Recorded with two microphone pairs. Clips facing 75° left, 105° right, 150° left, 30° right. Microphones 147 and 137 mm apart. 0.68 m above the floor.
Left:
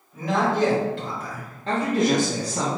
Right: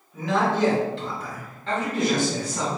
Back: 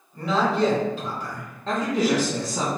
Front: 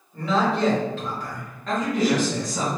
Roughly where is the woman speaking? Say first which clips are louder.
Left 3 dB, even; left.